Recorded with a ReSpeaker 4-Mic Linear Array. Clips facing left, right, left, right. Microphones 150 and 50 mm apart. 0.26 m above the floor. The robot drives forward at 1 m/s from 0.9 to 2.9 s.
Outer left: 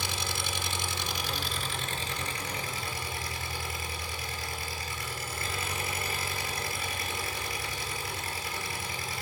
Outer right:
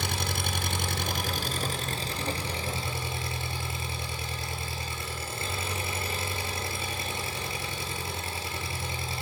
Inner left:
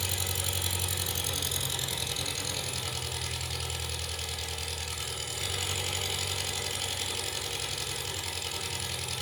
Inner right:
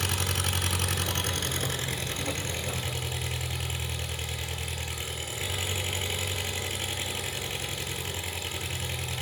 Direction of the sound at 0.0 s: 55° right (ahead or behind).